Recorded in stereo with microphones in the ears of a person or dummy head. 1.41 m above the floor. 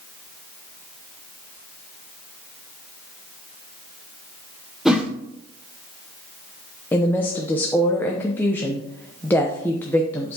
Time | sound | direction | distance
4.8 | a whoosh | centre (ahead or behind) | 1.0 m
6.9 | a woman speaking | 15° left (ahead or behind) | 0.6 m